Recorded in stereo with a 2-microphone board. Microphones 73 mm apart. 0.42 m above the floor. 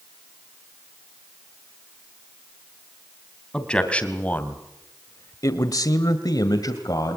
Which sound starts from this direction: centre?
A man speaking, at 3.5 s.